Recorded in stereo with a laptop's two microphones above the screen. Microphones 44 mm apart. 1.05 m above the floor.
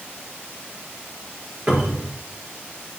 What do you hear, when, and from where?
1.7 s a cupboard door: 25° right (ahead or behind), 4 m